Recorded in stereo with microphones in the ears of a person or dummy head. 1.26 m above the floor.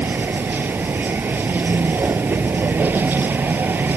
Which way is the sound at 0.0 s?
10° right (ahead or behind).